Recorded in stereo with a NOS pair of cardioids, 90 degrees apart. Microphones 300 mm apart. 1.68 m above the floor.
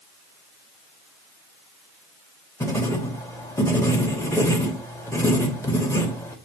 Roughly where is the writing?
Ahead.